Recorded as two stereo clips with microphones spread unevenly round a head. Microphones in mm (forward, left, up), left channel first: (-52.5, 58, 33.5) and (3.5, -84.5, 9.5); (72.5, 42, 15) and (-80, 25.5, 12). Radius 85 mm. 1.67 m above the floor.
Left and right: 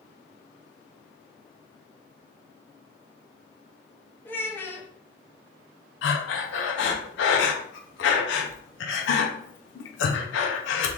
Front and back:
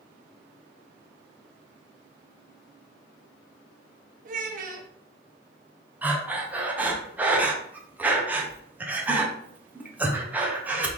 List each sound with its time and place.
4.2 s a child speaking: straight behind, 0.7 m
6.0 s breathing: 105° left, 0.6 m